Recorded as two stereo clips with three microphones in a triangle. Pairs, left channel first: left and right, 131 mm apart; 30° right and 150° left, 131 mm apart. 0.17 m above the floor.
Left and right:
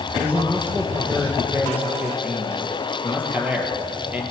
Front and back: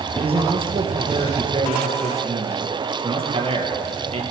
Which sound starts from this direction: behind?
A man speaking, at 0.2 s.